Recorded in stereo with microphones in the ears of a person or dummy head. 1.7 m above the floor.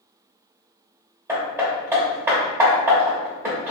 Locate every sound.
1.3 s hammering: 10° right (ahead or behind), 0.9 m